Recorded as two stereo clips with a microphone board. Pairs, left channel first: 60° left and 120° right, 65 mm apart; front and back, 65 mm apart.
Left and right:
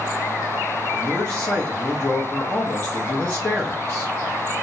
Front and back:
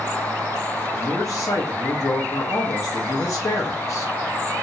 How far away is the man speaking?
About 0.7 m.